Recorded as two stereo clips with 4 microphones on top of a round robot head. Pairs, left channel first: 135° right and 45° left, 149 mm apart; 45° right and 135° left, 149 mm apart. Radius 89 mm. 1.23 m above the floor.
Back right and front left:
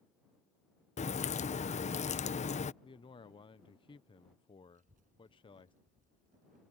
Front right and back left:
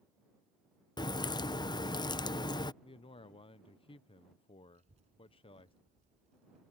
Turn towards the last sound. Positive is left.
turn(degrees=85)